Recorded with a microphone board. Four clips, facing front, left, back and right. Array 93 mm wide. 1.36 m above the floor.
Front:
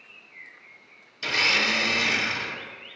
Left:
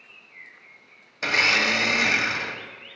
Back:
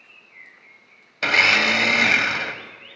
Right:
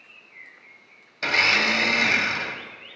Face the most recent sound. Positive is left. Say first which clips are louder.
# even, back 7 dB
turn(degrees=170)